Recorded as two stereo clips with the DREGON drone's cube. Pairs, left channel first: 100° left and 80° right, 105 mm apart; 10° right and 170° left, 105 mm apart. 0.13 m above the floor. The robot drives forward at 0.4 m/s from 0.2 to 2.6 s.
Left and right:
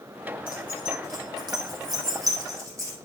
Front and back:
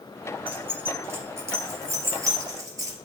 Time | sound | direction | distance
0.5 | keys jangling | 120° right | 2.5 m